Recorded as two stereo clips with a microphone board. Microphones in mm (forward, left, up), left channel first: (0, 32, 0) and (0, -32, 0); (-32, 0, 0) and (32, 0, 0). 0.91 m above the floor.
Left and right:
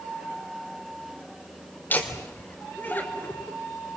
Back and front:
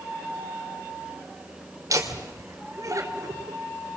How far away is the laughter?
About 3.5 m.